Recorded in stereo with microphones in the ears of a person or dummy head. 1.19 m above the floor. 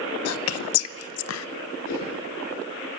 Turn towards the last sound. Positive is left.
turn(degrees=40)  # may be behind; listen again after turning